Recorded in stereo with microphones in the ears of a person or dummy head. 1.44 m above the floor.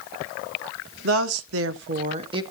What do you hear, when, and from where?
1.0 s a woman speaking: 65° right (ahead or behind), 1.0 m; by 2.4 s 30° right (ahead or behind), 0.9 m